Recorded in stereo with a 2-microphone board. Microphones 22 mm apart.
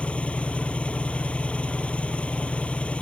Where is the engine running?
75° left (ahead or behind).